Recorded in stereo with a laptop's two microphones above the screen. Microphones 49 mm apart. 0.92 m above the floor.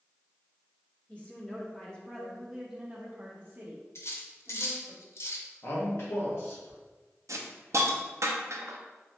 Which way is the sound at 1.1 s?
30° left (ahead or behind).